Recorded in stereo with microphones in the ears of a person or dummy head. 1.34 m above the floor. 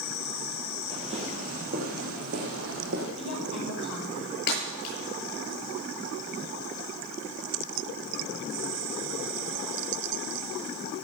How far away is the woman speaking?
About 4.5 m.